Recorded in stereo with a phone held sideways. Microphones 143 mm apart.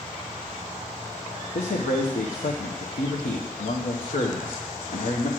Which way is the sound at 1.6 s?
85° left.